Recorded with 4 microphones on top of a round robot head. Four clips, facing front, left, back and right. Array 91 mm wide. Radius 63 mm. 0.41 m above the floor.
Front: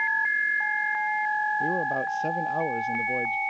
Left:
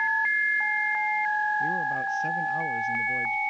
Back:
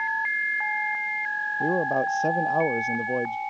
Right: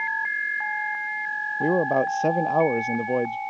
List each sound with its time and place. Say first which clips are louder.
1.6 s a man speaking: right 6 dB, back 3 dB; 105° right